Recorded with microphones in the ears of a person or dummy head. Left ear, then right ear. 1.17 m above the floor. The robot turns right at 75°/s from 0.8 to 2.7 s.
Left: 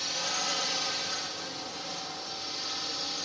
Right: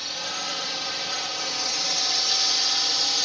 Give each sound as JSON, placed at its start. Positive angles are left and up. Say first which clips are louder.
{"t": 0.0, "sound": "a drone", "louder": "right 2 dB", "azimuth_deg": 180}